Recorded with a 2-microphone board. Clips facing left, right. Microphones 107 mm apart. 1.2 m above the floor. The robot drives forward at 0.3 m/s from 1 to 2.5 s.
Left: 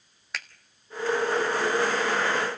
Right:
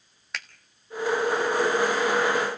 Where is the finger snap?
Centre (ahead or behind), 1.3 m.